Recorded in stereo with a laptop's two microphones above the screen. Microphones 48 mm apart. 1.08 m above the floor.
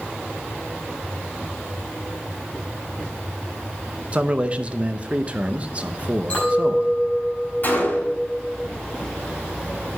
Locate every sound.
4.1 s a man speaking: 25° right (ahead or behind), 0.5 m
6.3 s a clink: 30° left (ahead or behind), 5 m
7.6 s a gunshot: 45° left (ahead or behind), 3.5 m